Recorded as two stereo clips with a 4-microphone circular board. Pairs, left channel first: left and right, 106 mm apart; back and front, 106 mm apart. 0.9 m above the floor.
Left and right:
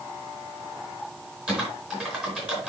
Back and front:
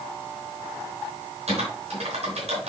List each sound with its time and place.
1.5 s typing on a keyboard: 10° right, 4.5 m